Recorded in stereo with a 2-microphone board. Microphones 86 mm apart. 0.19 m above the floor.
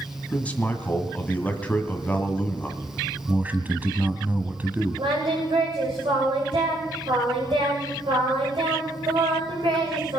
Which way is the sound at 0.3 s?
15° left (ahead or behind).